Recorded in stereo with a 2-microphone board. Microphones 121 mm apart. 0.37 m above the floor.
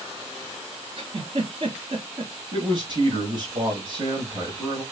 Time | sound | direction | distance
1.0 | a giggle | 55° right (ahead or behind) | 1.8 m
2.5 | a man speaking | 40° right (ahead or behind) | 1.7 m